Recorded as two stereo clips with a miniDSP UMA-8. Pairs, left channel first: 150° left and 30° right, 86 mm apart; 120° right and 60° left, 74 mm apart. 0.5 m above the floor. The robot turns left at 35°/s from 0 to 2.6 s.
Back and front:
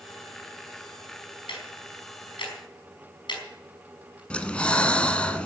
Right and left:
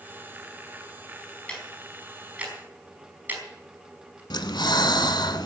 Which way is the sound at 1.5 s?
165° left.